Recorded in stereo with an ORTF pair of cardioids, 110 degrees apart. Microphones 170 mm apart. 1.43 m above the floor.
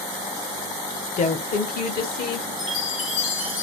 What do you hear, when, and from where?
1.2 s a woman speaking: 45° left, 0.9 m; by 2.5 s 70° left, 1.8 m
2.6 s a chime: 50° left, 1.4 m